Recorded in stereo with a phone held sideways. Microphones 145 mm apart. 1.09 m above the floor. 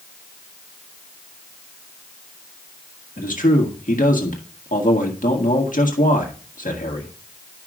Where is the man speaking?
65° left (ahead or behind), 1.7 m.